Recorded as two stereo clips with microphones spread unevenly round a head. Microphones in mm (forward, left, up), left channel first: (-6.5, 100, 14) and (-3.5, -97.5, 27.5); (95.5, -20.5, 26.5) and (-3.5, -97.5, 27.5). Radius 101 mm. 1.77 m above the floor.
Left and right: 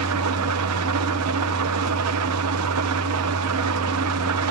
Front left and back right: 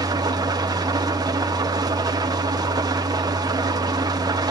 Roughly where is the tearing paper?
No tearing paper in this recording.